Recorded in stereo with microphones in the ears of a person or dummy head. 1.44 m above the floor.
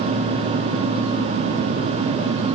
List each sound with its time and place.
Only background noise.